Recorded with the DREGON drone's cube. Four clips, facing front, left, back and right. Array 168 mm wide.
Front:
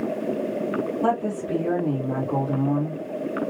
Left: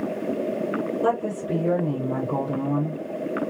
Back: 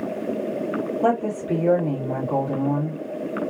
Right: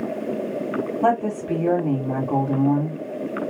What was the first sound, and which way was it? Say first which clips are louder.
A woman speaking: right 5 dB, back 4 dB; 100° right.